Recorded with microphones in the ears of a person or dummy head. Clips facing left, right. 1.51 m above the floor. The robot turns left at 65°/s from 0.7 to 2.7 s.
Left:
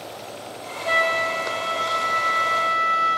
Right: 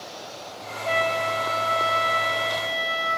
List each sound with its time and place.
0.8 s a flute: 25° left, 0.8 m; by 3.2 s 95° right, 0.8 m